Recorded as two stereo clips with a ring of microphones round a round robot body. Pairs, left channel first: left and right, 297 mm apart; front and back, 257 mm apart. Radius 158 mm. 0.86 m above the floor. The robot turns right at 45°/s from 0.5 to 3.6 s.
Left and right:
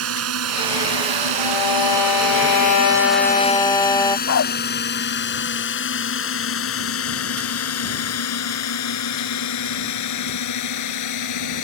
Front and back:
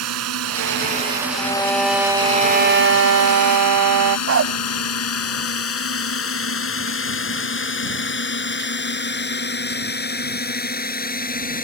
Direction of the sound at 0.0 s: 135° right.